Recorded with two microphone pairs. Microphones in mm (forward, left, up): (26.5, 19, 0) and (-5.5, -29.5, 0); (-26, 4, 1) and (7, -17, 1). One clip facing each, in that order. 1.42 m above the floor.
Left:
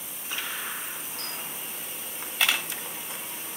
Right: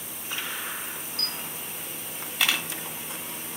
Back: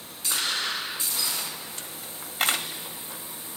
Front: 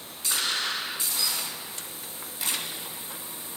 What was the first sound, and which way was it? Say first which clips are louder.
A camera shutter: right 2 dB, even; 145° left.